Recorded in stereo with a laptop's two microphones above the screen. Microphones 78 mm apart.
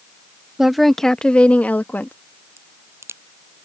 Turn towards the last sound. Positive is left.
turn(degrees=-35)  # may be behind; listen again after turning